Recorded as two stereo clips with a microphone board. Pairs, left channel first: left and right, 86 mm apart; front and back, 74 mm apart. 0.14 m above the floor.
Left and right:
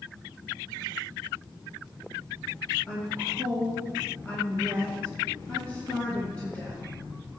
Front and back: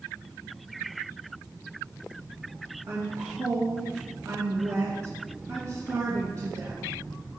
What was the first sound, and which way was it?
A woman speaking, 155° left.